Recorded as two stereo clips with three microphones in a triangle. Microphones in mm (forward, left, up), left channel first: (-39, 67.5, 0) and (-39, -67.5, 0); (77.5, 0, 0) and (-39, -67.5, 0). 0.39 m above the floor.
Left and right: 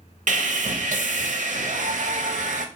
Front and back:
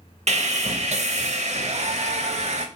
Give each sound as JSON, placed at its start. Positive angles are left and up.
{"t": 0.3, "sound": "sawing", "azimuth_deg": -115, "distance_m": 0.6}